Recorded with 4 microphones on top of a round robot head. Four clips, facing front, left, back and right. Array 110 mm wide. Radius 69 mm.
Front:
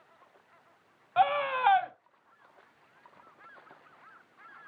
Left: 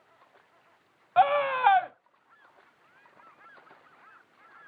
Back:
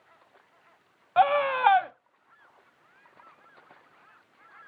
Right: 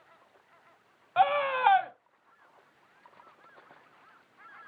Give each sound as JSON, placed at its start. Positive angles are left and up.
{"t": 1.2, "sound": "a scream", "azimuth_deg": 145, "distance_m": 0.7}